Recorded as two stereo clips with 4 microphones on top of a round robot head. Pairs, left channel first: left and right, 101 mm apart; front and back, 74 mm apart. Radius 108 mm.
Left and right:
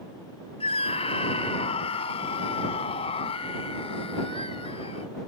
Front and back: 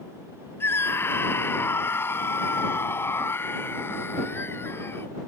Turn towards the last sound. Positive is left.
turn(degrees=55)